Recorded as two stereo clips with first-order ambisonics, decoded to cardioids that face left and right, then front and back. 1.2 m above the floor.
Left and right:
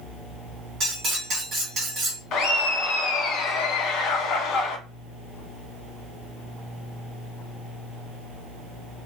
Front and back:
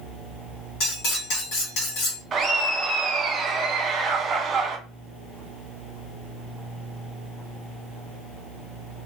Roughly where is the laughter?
Behind left.